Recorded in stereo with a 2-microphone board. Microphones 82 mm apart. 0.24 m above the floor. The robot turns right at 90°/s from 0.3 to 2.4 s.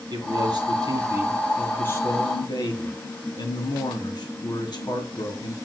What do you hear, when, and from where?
0.1 s a man speaking: 110° right, 3 m; by 5.5 s 80° left, 3 m